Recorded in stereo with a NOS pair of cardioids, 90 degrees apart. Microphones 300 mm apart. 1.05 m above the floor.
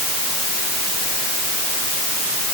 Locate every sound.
Only background noise.